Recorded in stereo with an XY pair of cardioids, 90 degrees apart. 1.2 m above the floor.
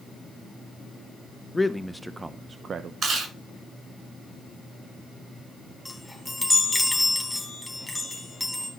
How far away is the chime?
About 3 m.